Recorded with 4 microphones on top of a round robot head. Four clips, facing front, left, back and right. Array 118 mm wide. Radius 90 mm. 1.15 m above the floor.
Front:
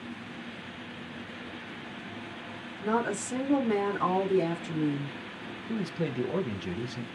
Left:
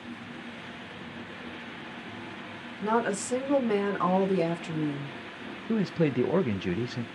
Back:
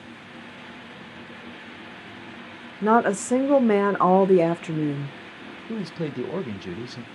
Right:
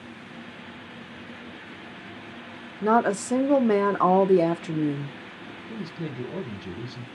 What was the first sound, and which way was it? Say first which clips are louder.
A woman speaking: right 6 dB, back 9 dB; 150° right.